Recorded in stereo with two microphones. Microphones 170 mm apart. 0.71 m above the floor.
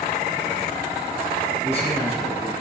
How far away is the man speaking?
About 5.5 m.